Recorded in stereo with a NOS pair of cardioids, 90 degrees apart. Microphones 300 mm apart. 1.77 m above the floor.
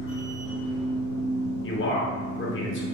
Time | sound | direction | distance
0.0 | a machine running | 40° left | 1.4 m
1.6 | a man speaking | 40° left | 1.6 m